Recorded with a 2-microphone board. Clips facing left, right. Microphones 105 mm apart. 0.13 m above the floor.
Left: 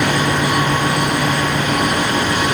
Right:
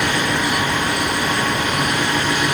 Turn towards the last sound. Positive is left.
No sound to turn to.